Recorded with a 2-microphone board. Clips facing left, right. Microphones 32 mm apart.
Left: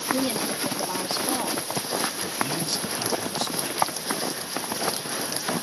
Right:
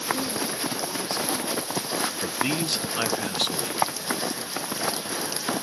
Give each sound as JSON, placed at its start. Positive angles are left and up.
{"t": 0.1, "sound": "a woman speaking", "side_deg": 45}
{"t": 2.2, "sound": "a man speaking", "side_deg": -55}